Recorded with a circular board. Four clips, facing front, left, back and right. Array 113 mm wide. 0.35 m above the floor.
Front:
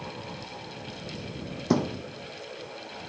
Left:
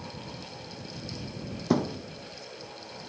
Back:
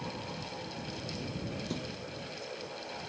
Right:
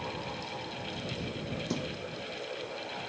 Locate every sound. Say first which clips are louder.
1.7 s a thud: left 13 dB, front 13 dB; 40° left